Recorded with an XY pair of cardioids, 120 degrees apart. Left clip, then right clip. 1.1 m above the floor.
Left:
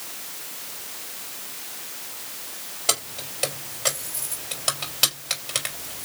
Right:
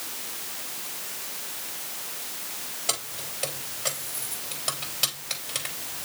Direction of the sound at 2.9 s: 40° left.